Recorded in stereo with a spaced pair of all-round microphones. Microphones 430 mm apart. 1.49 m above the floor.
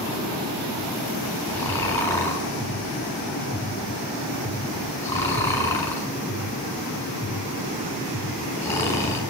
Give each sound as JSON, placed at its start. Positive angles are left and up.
{"t": 1.5, "sound": "snoring", "side_deg": 5, "distance_m": 5.5}